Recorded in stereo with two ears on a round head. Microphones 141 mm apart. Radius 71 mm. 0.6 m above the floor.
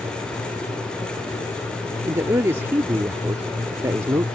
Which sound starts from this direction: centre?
A man speaking, at 2.0 s.